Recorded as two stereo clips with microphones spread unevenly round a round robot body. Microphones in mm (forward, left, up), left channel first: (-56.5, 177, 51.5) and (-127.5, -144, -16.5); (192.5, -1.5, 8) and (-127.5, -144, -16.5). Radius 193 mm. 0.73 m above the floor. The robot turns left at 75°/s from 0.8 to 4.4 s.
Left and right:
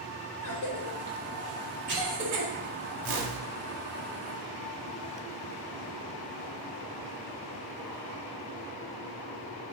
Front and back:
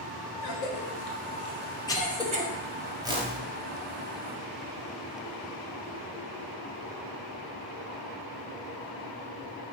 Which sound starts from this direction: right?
A whoosh, at 3.0 s.